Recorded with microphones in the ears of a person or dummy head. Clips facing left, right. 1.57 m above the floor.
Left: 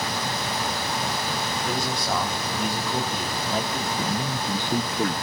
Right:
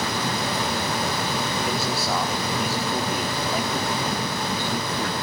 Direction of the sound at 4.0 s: 15° left (ahead or behind).